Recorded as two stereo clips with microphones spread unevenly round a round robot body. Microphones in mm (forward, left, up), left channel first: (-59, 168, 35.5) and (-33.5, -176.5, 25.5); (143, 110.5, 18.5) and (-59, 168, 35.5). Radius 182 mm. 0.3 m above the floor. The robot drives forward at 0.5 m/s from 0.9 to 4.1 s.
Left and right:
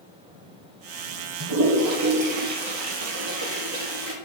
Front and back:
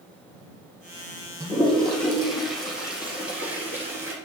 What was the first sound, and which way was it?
A toilet flushing, 115° right.